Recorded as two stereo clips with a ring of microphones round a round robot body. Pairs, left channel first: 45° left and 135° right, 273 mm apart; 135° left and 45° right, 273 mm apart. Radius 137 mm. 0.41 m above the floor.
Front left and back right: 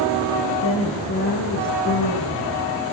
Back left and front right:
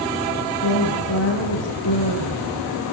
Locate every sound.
0.6 s a woman speaking: 90° left, 8.5 m; by 2.9 s 100° left, 8 m